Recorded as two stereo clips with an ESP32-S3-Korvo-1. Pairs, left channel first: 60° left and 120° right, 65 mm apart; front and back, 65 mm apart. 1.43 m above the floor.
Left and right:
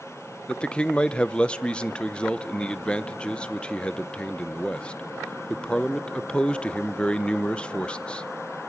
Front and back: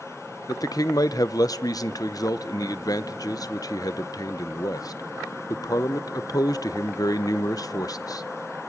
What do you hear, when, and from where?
0.5 s a man speaking: 15° right, 0.7 m